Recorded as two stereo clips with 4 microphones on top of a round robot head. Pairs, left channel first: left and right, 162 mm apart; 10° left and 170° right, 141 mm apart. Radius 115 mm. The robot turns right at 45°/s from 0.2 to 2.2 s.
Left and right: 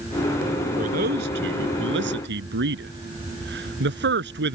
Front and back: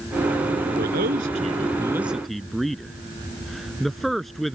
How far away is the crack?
No crack in this recording.